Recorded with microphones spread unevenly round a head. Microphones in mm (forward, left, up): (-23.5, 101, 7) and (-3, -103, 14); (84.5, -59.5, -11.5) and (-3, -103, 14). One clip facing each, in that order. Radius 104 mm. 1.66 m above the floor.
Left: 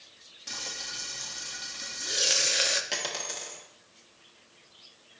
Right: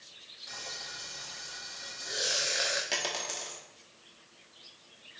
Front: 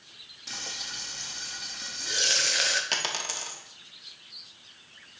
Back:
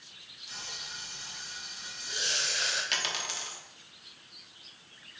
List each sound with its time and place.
0.5 s frying: 45° left, 0.7 m
2.9 s a dropped coin: 5° left, 1.2 m